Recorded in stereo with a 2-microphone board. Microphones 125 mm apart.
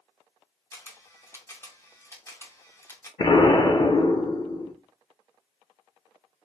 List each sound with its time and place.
0.7 s a camera shutter: 20° left (ahead or behind), 0.7 m
3.2 s an explosion: 35° left (ahead or behind), 0.5 m